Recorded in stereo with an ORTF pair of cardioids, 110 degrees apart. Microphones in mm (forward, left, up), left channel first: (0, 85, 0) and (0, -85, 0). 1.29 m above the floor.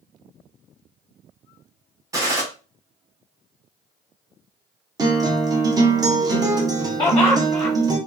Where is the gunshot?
20° right, 1.0 m.